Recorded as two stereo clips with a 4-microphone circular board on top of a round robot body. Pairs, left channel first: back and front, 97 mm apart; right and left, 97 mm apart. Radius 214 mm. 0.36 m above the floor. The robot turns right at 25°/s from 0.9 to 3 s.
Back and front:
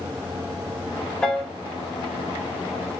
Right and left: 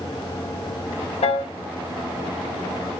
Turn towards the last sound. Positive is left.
turn(degrees=-55)